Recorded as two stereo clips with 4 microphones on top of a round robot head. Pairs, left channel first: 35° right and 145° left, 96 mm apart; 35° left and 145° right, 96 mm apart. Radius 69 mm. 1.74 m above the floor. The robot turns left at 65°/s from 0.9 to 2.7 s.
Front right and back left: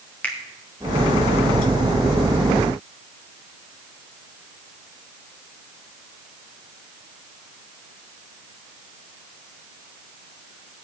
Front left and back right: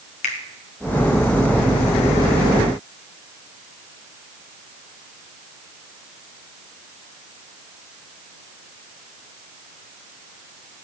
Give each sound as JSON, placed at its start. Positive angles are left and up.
{"t": 0.2, "sound": "a finger snap", "azimuth_deg": 40, "distance_m": 1.7}